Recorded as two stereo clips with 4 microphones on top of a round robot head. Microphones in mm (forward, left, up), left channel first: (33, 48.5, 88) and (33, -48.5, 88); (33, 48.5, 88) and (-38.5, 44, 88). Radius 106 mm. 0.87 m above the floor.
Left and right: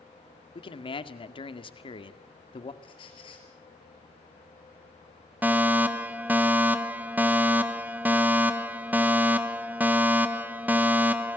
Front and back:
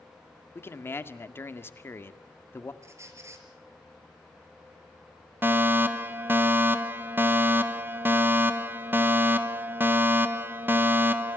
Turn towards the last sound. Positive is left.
turn(degrees=-145)